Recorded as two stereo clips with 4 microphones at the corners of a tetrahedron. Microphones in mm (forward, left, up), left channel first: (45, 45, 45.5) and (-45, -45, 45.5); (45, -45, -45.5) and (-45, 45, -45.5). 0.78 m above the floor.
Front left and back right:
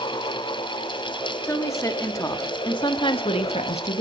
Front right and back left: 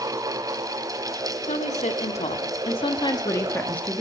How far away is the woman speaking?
About 1.8 m.